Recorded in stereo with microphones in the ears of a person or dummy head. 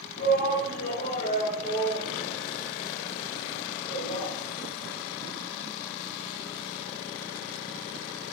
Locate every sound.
0.2 s a shout: 65° left (ahead or behind), 2.5 m; by 4.3 s 30° left (ahead or behind), 4 m